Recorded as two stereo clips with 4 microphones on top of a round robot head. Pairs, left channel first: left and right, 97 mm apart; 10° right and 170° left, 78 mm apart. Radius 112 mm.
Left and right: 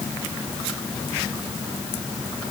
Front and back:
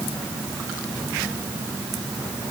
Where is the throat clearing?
No throat clearing in this recording.